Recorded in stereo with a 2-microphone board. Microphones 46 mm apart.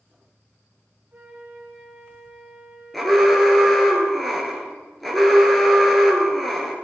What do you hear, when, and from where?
1.1 s a flute: 50° right (ahead or behind), 2.5 m
2.9 s an alarm: 5° left (ahead or behind), 1.9 m